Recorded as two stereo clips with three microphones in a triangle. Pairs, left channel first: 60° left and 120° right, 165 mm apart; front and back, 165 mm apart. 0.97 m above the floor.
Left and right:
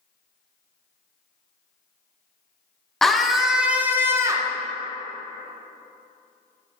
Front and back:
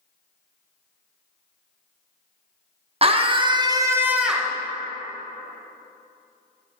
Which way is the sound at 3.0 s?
145° left.